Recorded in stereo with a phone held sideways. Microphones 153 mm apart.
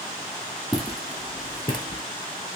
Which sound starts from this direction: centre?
Footsteps, at 0.7 s.